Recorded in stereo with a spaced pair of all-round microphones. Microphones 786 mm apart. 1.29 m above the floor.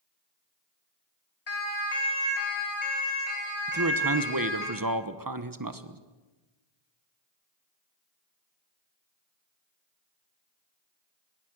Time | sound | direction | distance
1.5 | a siren | 50° left (ahead or behind) | 3.5 m
3.7 | a man speaking | 25° right (ahead or behind) | 1.3 m